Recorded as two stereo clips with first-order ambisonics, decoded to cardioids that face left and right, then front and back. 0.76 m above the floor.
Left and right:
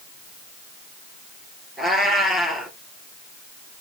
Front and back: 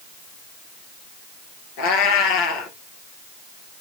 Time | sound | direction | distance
1.8 | a cat meowing | 5° right | 2.5 m